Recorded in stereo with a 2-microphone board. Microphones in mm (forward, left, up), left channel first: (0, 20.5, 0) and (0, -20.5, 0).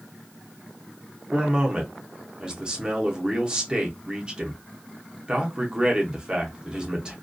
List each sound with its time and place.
1.3 s a man speaking: 20° right (ahead or behind), 0.7 m